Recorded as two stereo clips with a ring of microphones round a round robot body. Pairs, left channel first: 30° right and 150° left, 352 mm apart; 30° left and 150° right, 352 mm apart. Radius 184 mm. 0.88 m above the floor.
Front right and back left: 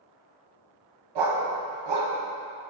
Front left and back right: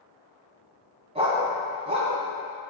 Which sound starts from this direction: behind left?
A dog barking, at 1.1 s.